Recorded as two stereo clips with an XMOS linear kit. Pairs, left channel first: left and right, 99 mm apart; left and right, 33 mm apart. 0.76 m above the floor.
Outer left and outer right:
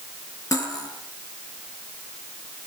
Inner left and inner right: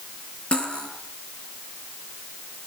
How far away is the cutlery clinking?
About 8.5 m.